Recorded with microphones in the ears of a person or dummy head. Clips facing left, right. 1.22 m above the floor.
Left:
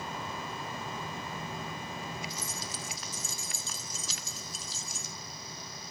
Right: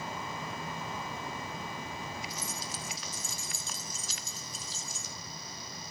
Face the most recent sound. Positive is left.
turn(degrees=50)  # may be behind; listen again after turning